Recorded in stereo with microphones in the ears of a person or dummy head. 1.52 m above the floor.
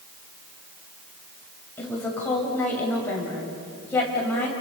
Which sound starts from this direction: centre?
A woman speaking, at 1.8 s.